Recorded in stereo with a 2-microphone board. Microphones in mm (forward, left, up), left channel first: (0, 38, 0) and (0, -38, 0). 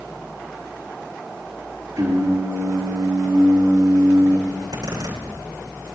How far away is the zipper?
About 9 m.